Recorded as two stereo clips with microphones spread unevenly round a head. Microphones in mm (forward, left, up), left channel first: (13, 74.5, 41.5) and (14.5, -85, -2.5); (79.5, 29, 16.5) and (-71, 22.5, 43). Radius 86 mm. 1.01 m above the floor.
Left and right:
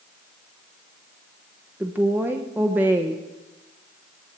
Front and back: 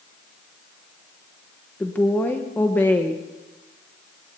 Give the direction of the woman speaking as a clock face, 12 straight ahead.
2 o'clock.